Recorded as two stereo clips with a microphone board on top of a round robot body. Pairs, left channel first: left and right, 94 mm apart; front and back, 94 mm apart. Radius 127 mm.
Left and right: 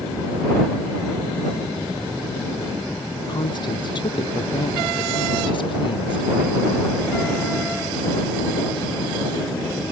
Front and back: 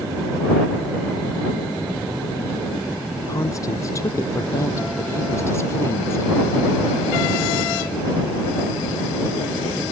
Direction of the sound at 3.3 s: 55° left.